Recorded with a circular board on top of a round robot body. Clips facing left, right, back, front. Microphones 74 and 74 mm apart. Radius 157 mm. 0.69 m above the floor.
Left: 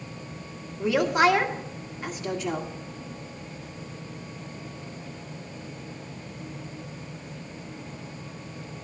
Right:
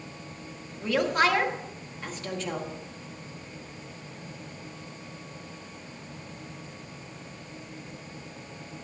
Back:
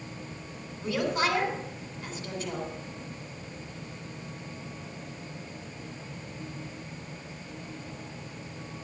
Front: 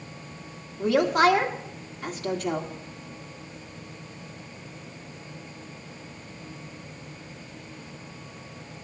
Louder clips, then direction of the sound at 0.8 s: Left 3 dB, front 8 dB; 10° left.